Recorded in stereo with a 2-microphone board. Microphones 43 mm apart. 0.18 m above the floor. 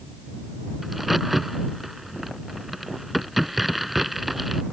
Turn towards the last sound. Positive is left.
turn(degrees=-5)  # may be behind; listen again after turning